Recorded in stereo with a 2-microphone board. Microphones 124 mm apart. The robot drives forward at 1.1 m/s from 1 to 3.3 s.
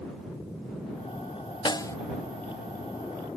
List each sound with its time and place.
1.6 s a snare drum: 35° left (ahead or behind); by 2.0 s 25° left (ahead or behind)